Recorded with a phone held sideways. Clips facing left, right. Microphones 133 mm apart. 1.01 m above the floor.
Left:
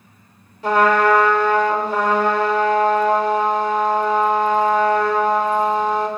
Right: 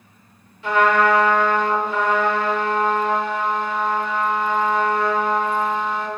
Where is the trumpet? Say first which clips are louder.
Left 2 dB; 40° left (ahead or behind), 0.8 m.